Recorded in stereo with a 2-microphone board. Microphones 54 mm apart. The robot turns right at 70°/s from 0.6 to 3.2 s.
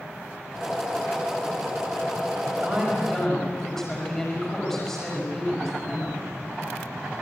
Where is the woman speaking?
40° right, 6 m; by 6.2 s 5° left, 6 m.